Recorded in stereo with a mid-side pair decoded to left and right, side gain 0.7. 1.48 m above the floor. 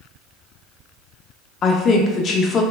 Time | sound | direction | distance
1.6 | a woman speaking | 40° left | 0.5 m